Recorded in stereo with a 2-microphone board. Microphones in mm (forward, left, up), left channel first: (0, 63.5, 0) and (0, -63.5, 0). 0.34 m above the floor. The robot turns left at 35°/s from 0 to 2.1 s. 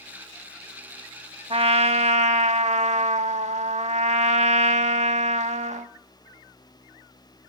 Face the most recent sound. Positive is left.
turn(degrees=-70)  # may be behind; listen again after turning